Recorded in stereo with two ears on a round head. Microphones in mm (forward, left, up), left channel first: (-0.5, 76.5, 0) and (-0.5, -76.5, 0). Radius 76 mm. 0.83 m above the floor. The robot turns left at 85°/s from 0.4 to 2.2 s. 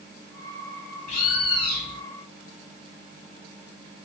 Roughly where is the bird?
Behind left.